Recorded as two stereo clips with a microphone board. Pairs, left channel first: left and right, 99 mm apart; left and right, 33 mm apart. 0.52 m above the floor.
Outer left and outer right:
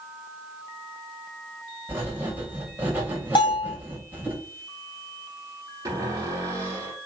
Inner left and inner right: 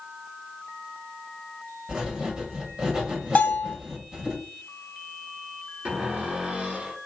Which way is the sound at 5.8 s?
40° right (ahead or behind).